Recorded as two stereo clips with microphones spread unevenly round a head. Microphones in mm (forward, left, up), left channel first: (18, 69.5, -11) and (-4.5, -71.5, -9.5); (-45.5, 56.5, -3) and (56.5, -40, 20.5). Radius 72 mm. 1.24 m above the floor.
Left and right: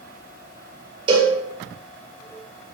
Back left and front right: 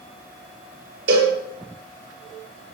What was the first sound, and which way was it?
A cowbell, 45° right.